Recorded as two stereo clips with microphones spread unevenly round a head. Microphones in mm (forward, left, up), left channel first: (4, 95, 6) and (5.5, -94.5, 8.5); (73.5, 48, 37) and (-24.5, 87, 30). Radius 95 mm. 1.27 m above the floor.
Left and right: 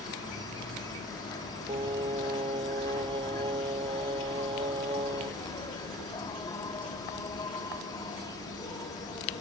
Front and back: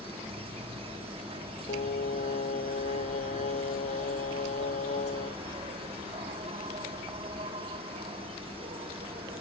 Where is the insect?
155° left.